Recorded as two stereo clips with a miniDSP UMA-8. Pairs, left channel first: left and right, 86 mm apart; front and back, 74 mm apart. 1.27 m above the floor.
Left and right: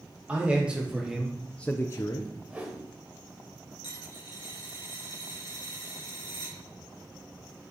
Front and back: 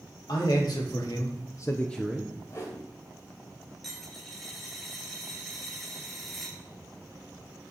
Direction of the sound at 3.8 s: 85° left.